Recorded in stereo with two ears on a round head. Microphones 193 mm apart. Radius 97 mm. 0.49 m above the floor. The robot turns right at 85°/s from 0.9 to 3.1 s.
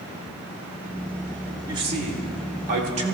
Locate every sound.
1.7 s a man speaking: 155° right, 2.0 m; by 3.1 s 35° right, 2.0 m